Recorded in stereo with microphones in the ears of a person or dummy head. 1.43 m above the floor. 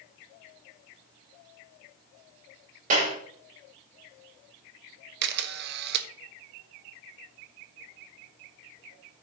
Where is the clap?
45° right (ahead or behind), 5.5 m.